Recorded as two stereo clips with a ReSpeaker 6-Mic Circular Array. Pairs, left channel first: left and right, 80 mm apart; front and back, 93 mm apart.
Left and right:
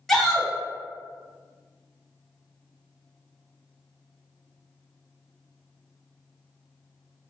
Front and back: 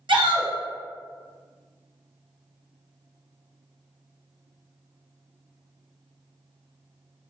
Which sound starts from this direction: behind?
A shout, at 0.1 s.